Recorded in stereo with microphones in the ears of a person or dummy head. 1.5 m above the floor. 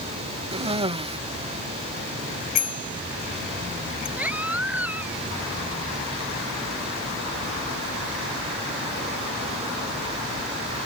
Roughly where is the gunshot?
I don't hear a gunshot.